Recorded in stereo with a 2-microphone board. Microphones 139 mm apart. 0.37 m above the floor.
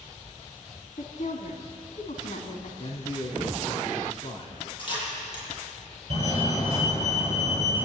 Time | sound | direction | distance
1.0 | a woman speaking | 65° left (ahead or behind) | 3.5 m
2.8 | a man speaking | 40° left (ahead or behind) | 3 m
4.8 | a camera shutter | 35° left (ahead or behind) | 10 m
6.1 | a fire alarm | 40° right (ahead or behind) | 9 m